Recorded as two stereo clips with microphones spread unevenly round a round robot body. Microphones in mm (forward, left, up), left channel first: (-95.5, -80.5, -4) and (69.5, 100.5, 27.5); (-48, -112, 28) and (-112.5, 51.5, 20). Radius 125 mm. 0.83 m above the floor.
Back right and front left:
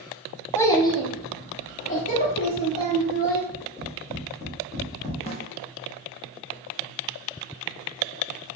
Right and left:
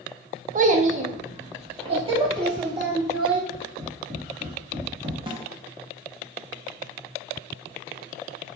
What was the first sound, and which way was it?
A child speaking, 150° left.